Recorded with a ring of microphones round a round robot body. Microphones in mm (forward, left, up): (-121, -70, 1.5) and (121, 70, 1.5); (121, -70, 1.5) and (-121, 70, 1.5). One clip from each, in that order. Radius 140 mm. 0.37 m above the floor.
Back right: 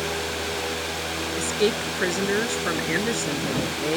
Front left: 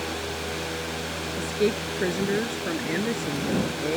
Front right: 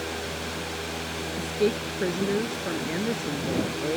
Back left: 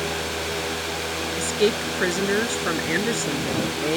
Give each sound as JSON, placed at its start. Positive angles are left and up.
{"t": 1.4, "sound": "a woman speaking", "azimuth_deg": 170}